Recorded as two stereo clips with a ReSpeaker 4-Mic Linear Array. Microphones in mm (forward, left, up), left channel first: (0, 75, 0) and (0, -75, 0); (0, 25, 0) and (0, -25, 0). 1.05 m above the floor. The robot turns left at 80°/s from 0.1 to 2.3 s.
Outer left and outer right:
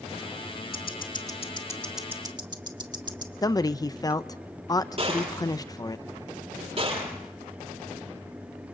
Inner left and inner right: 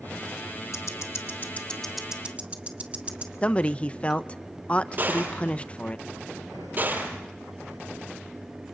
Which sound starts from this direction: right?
A gunshot, at 5.0 s.